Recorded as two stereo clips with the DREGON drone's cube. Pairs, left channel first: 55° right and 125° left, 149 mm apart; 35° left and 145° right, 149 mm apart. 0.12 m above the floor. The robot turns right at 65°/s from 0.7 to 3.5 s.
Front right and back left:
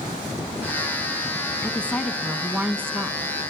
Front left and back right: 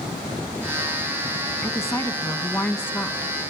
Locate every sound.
1.6 s a woman speaking: 5° right, 1.3 m; by 3.3 s 105° left, 1.3 m